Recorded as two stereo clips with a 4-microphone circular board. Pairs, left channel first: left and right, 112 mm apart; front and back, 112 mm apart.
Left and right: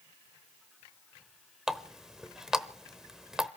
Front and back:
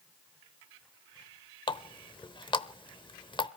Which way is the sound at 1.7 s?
5° right.